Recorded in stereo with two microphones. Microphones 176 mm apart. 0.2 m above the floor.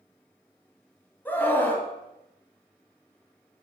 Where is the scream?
10° left (ahead or behind), 1.5 m.